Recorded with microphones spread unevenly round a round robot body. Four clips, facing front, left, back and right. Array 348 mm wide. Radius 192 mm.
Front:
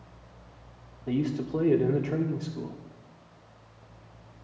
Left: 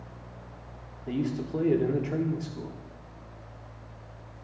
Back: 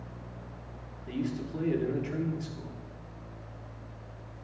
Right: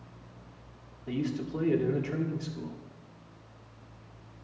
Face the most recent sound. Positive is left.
turn(degrees=30)